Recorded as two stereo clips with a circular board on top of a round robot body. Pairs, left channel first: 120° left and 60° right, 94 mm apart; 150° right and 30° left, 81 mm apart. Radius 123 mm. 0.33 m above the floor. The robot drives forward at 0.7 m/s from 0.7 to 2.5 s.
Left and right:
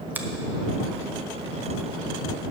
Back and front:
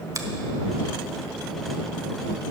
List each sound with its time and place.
0.1 s a finger snap: 5° left, 1.0 m